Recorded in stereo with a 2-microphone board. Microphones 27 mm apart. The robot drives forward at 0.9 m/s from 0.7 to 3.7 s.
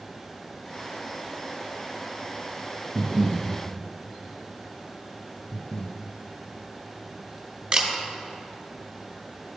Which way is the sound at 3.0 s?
50° right (ahead or behind).